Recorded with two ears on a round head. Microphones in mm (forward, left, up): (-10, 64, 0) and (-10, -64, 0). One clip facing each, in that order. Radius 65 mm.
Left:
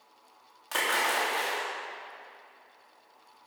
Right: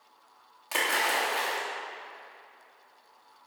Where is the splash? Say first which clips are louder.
Even; 10° right (ahead or behind), 3.5 m.